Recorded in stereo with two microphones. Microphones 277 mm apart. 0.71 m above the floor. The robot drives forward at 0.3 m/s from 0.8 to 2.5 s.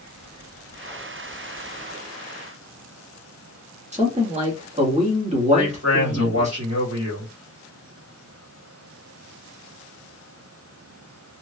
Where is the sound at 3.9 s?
25° right (ahead or behind), 1.5 m.